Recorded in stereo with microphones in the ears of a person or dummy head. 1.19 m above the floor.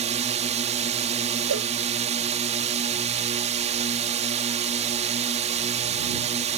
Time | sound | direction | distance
0.0 | a drone | 35° right (ahead or behind) | ?
1.5 | a cowbell | 65° right (ahead or behind) | ?